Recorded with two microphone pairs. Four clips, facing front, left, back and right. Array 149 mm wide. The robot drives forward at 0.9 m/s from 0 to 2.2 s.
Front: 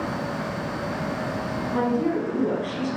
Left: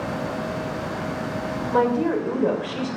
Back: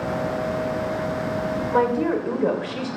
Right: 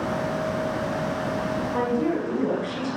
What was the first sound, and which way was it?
A woman speaking, 140° left.